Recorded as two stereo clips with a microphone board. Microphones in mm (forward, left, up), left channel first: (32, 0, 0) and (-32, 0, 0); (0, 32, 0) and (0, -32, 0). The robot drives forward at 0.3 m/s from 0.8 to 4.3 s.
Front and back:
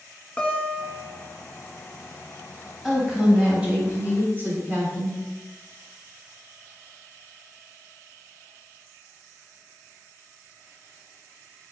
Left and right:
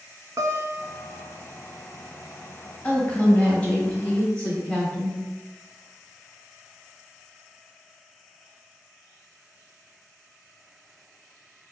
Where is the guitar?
70° right, 0.6 m; by 1.2 s 85° right, 0.6 m.